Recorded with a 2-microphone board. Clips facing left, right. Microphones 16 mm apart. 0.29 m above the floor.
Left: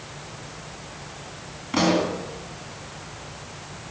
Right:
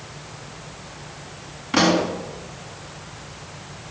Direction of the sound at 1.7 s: 15° right (ahead or behind).